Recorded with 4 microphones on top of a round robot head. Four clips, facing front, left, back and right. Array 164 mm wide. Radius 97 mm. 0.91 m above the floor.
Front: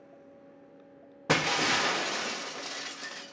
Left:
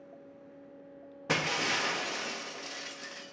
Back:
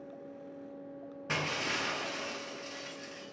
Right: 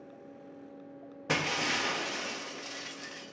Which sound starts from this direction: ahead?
Breaking glass, at 1.3 s.